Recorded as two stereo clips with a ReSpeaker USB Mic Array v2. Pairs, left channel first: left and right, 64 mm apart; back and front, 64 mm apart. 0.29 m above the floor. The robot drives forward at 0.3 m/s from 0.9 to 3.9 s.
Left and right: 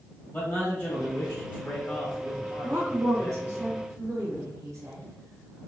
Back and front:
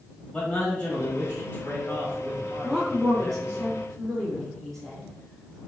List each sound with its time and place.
0.3 s a man speaking: 130° left, 1.3 m; by 3.6 s 155° left, 1.8 m
2.6 s a woman speaking: 90° right, 1.9 m; by 5.6 s 100° right, 2.0 m